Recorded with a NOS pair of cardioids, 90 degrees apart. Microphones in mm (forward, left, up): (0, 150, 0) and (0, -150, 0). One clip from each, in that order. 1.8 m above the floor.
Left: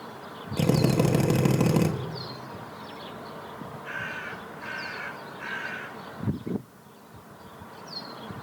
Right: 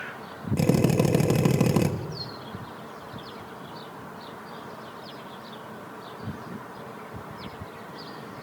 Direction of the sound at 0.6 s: 5° right.